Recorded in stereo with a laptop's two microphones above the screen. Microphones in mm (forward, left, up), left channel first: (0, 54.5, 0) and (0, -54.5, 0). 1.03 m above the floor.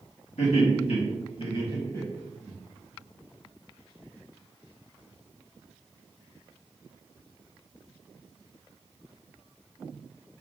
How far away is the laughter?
About 1.9 m.